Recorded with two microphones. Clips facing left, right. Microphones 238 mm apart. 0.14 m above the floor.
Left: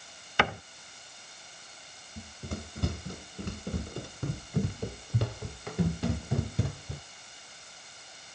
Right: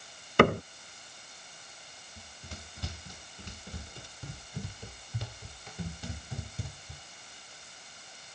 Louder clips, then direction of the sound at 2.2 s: Left 11 dB; 55° left (ahead or behind).